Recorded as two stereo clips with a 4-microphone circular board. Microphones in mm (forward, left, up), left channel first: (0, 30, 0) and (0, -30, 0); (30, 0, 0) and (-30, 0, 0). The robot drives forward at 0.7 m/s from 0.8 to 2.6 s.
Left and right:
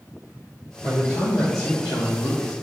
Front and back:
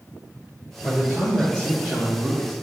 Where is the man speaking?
60° left, 1.4 m; by 2.5 s 110° left, 1.3 m.